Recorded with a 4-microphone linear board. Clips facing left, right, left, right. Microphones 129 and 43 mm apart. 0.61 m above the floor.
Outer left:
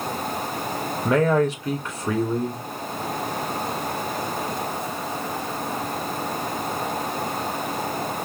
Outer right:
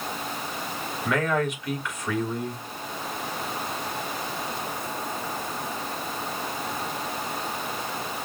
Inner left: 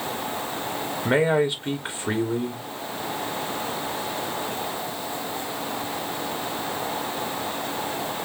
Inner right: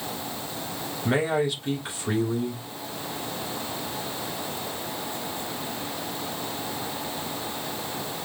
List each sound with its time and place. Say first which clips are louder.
1.1 s a man speaking: outer left 6 dB, inner left 4 dB; 35° left (ahead or behind), 1.2 m